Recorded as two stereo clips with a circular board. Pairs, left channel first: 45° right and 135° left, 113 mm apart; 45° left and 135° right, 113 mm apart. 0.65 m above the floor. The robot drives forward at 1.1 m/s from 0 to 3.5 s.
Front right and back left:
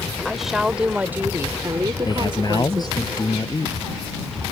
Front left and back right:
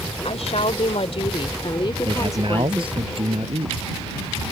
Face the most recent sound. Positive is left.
turn(degrees=-100)